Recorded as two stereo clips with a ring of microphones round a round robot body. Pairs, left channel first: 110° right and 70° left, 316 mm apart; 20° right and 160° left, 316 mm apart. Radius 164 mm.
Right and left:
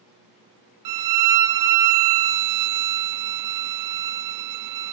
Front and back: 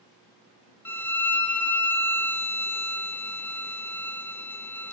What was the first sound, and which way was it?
A violin, 60° left.